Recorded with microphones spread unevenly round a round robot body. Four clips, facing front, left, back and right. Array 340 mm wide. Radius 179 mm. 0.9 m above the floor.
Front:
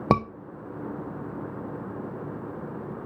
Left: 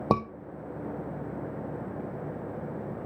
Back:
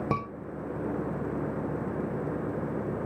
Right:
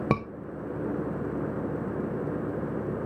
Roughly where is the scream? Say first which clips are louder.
Left 3 dB, front 10 dB; ahead.